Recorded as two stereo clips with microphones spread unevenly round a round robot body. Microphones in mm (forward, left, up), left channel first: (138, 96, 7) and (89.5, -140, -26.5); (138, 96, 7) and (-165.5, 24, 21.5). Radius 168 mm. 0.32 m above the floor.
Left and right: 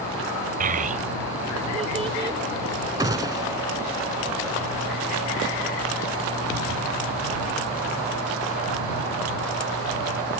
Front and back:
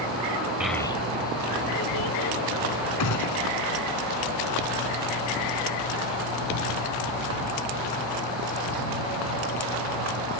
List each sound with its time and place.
0.6 s a child speaking: 80° right; by 2.4 s 35° right
3.0 s a gunshot: 25° right